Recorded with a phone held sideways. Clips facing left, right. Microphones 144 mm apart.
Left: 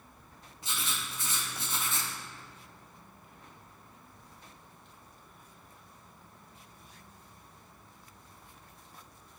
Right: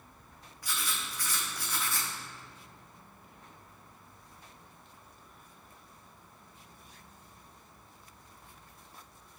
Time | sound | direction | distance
0.6 | writing | 25° left (ahead or behind) | 0.8 m